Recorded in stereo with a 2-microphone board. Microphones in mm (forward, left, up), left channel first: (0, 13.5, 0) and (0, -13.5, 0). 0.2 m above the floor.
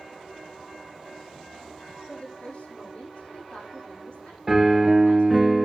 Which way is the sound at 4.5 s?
10° right (ahead or behind).